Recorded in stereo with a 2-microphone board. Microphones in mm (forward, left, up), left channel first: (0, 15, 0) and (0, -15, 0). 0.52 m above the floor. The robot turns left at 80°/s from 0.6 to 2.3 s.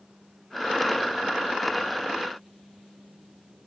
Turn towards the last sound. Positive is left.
No sound to turn to.